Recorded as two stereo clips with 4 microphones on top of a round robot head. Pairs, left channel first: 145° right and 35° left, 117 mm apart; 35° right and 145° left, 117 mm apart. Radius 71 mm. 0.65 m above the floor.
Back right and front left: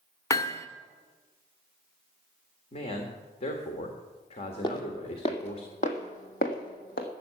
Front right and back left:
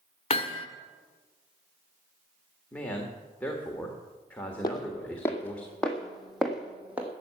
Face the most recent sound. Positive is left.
turn(degrees=-135)